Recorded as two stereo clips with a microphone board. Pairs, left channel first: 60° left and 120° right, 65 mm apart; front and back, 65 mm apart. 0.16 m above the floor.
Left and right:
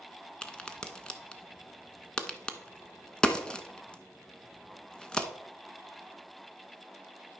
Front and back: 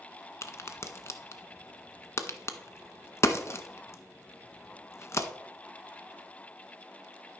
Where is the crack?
10° right, 0.7 m.